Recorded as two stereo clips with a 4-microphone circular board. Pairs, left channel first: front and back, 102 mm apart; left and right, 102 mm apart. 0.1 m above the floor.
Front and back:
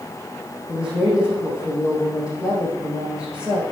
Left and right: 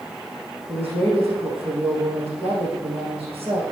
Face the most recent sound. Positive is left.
turn(degrees=-100)